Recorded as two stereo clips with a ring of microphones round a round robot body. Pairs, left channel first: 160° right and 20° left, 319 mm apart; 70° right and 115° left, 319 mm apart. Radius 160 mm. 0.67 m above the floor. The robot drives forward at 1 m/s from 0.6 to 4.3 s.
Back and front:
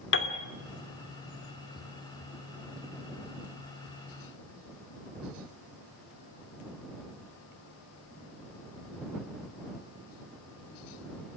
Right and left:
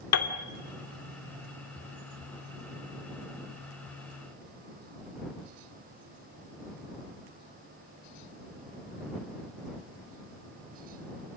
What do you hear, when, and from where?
0.1 s a piano: 105° right, 2 m